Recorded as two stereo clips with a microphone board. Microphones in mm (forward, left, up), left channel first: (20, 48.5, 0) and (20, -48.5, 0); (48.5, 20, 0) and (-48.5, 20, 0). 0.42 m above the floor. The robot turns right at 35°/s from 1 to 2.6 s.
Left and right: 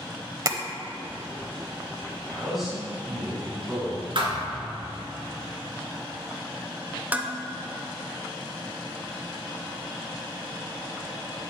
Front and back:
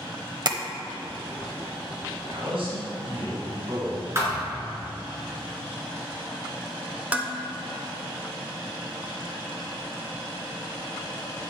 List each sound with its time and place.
0.5 s tapping: 140° right, 0.7 m
2.3 s a man speaking: 170° left, 2.5 m; by 4.0 s 175° right, 2.5 m
4.2 s a thud: 115° right, 3 m
7.1 s dishes clattering: 130° right, 0.7 m